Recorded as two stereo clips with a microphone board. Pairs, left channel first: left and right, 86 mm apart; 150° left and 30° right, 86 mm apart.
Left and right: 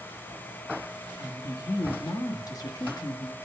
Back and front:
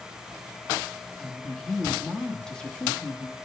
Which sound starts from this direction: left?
A woman speaking, at 1.2 s.